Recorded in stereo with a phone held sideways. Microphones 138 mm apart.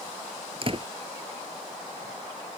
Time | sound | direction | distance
0.6 | a door slam | 40° right (ahead or behind) | ?